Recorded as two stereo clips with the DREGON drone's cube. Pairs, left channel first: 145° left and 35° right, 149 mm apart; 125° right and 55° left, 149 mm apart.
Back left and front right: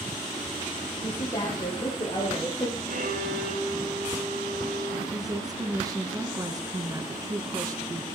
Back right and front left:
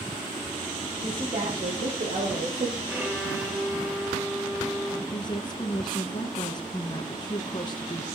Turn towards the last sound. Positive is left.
turn(degrees=-85)